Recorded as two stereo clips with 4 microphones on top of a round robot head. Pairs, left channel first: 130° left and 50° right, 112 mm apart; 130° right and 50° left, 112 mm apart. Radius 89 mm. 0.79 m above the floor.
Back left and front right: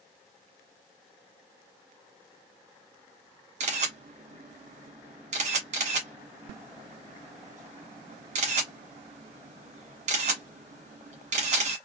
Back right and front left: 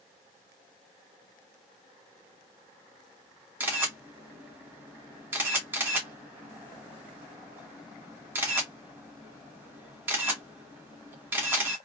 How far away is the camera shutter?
About 1.4 m.